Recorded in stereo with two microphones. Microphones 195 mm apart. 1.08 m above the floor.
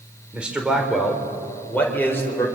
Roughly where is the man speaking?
Centre.